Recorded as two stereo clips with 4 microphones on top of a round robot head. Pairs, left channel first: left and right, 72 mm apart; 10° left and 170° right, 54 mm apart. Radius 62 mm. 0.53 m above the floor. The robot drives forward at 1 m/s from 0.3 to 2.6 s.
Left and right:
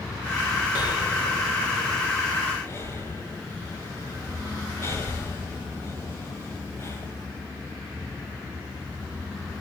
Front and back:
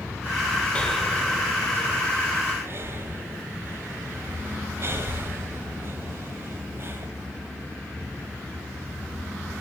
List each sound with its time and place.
0.8 s breathing: 80° left, 1.0 m; by 7.1 s 150° left, 1.9 m